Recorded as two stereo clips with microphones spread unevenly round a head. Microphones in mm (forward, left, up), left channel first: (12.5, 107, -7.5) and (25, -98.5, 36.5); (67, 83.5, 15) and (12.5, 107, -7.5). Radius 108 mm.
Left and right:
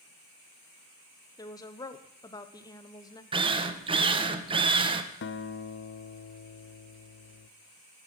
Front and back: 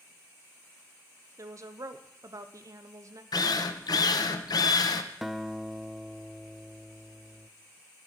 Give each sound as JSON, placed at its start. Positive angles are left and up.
{"t": 1.4, "sound": "a woman speaking", "azimuth_deg": 160, "distance_m": 0.9}
{"t": 3.3, "sound": "a drill", "azimuth_deg": -20, "distance_m": 0.9}
{"t": 5.2, "sound": "a guitar", "azimuth_deg": 55, "distance_m": 0.7}